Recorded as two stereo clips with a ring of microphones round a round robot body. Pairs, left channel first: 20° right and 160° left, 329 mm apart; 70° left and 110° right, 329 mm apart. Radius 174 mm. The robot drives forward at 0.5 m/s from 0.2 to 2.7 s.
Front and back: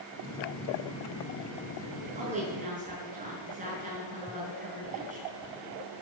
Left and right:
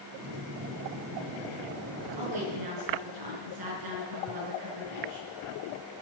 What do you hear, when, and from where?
2.2 s a woman speaking: 135° right, 6 m